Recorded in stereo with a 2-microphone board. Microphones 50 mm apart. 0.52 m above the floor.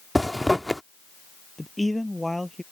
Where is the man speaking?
5° left (ahead or behind).